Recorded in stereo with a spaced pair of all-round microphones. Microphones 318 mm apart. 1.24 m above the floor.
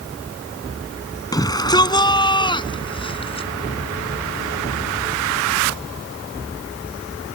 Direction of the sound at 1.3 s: 10° left (ahead or behind).